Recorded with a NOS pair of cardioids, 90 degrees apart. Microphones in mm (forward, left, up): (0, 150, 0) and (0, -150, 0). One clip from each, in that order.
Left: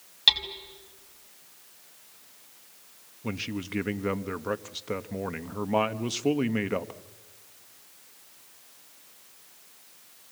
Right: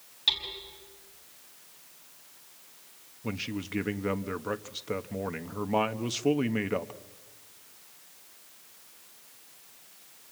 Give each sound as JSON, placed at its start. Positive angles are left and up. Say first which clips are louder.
{"t": 0.3, "sound": "hammering", "louder": "left 6 dB", "azimuth_deg": 50, "distance_m": 5.0}
{"t": 3.2, "sound": "a man speaking", "louder": "left 1 dB", "azimuth_deg": 5, "distance_m": 1.2}